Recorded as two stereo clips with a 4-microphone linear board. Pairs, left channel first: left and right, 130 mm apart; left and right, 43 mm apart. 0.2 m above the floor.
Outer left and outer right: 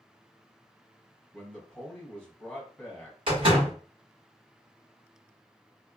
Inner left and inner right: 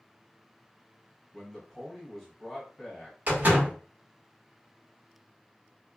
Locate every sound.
1.3 s a man speaking: 5° left (ahead or behind), 1.3 m
3.3 s a door slam: 45° right (ahead or behind), 1.6 m